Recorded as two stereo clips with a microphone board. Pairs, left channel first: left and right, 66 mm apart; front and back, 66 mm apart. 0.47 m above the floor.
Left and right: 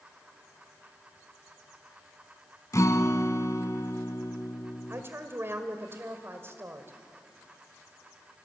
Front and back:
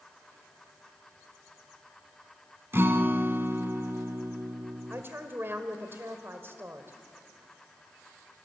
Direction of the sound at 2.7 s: 125° left.